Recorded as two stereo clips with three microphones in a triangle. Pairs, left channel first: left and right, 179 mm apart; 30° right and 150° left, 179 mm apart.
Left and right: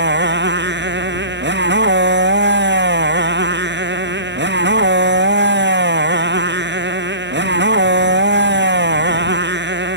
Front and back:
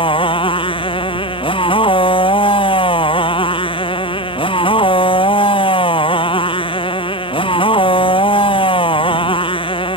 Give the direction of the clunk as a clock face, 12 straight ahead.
I don't hear a clunk.